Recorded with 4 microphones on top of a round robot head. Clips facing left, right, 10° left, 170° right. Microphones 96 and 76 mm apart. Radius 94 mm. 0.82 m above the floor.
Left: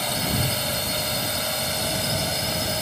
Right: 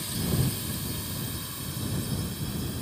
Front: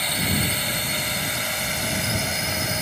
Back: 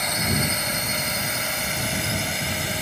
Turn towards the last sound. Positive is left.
turn(degrees=95)